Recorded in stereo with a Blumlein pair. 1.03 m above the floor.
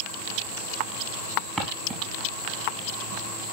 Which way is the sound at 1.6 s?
25° right.